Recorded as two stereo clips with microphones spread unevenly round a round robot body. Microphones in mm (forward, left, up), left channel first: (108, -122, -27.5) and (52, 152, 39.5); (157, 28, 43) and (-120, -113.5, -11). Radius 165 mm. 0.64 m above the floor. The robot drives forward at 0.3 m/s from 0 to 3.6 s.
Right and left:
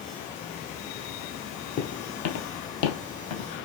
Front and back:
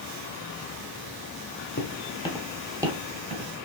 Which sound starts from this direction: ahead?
Footsteps, at 1.8 s.